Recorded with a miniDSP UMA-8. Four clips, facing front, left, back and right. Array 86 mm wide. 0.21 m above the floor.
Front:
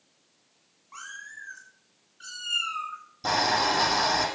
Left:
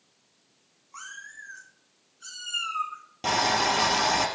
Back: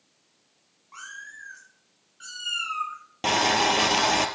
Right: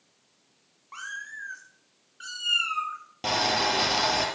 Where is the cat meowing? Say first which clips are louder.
Right 5 dB, even; 85° right, 7 m; by 3.0 s 115° right, 5.5 m.